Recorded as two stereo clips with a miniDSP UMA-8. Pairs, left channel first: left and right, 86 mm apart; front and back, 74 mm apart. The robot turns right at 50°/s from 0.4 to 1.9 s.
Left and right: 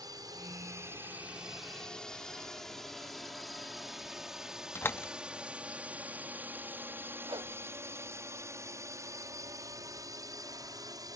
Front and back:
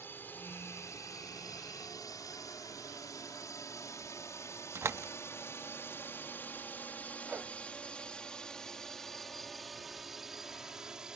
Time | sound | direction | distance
0.0 | a drone | 60° right | ?
4.8 | a door slam | 145° left | ?
7.2 | a whoosh | 110° right | ?